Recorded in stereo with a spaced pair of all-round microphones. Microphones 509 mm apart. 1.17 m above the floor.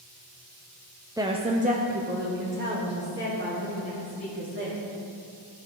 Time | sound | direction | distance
1.2 | a woman speaking | 5° right (ahead or behind) | 0.6 m